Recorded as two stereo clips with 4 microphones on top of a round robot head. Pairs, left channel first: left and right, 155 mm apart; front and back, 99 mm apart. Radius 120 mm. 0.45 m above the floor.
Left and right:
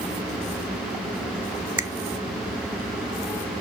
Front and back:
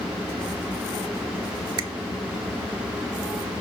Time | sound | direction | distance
1.8 | a finger snap | 160° right | 0.7 m